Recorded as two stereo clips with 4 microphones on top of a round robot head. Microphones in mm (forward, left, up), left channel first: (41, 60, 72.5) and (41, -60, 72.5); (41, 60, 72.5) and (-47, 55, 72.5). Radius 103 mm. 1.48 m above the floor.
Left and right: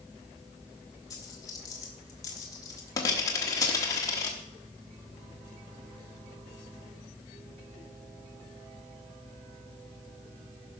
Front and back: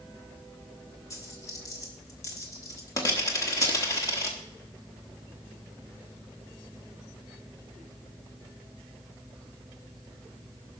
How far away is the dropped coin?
About 1.2 m.